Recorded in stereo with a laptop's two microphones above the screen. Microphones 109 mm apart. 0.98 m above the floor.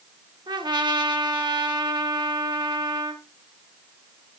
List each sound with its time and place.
0.5 s a trumpet: 45° right (ahead or behind), 1.2 m